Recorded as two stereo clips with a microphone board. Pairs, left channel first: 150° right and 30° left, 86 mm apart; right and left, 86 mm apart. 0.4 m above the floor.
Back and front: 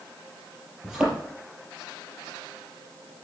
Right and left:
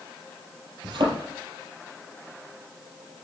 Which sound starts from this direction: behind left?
A thud, at 0.8 s.